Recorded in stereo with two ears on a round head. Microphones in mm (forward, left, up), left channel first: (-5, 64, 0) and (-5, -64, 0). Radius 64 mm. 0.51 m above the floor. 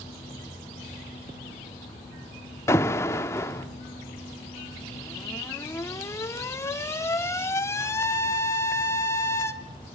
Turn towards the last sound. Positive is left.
turn(degrees=20)  # may be behind; listen again after turning